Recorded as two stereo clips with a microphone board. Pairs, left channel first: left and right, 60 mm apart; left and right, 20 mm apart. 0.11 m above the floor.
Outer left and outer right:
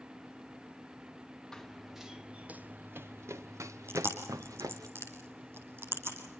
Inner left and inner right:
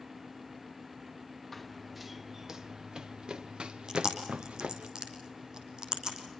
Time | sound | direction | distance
1.5 | running footsteps | 10° left (ahead or behind) | 1.2 m
3.9 | chewing | 45° right (ahead or behind) | 4.5 m